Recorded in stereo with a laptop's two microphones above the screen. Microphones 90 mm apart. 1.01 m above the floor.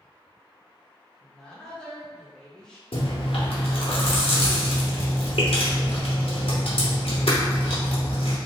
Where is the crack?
I don't hear a crack.